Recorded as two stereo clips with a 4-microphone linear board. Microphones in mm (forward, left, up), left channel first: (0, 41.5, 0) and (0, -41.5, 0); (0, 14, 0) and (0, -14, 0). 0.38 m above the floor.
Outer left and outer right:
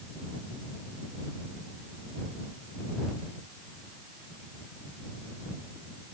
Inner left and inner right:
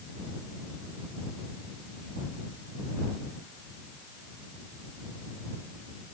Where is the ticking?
I don't hear ticking.